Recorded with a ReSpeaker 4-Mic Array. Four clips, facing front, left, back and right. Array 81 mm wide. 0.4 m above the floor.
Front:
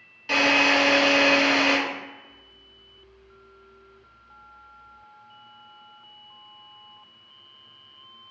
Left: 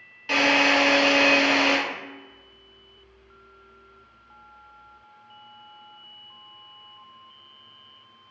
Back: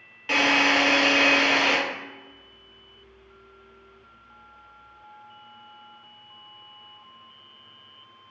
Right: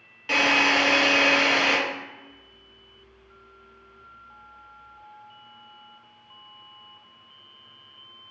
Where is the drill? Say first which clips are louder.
Left 1 dB, front 1 dB; 160° right, 1.2 m.